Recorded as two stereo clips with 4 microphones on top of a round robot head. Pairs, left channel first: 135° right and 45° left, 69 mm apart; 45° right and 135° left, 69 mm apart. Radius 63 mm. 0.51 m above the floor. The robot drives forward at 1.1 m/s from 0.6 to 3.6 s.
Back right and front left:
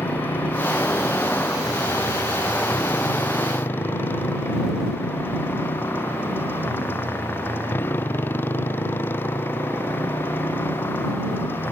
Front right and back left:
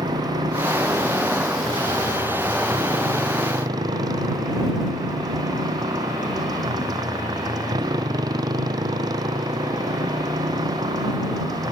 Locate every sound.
0.0 s a motorcycle: 160° left; by 11.7 s 165° left